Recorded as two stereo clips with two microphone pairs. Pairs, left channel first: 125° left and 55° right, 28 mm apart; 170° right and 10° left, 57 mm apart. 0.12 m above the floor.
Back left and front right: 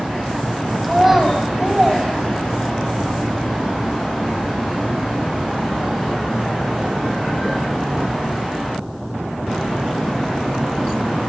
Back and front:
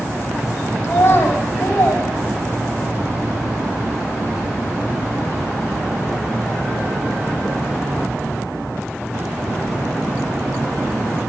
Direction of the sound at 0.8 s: 135° right.